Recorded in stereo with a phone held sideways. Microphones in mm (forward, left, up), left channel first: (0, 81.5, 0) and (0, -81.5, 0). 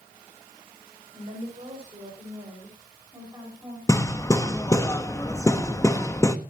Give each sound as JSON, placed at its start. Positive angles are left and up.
{"t": 1.1, "sound": "a woman speaking", "side_deg": -40, "distance_m": 5.5}
{"t": 3.9, "sound": "hammering", "side_deg": 20, "distance_m": 1.2}